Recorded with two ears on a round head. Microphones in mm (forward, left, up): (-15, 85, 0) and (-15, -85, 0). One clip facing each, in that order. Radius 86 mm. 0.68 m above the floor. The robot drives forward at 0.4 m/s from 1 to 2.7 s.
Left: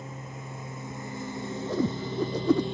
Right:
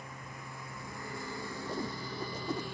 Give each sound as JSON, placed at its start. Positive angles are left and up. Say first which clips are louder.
{"t": 0.0, "sound": "a lawn mower", "louder": "left 6 dB", "side_deg": 20}
{"t": 1.7, "sound": "a whoosh", "louder": "left 12 dB", "side_deg": 65}